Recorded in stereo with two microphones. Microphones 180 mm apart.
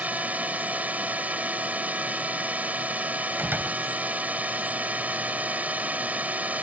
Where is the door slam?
10° right (ahead or behind).